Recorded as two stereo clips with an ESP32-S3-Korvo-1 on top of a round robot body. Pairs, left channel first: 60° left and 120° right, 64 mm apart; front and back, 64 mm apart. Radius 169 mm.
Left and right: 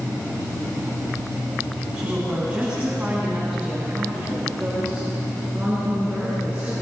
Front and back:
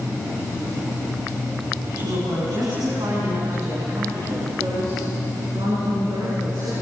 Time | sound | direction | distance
1.9 | a woman speaking | 165° left | 6.5 m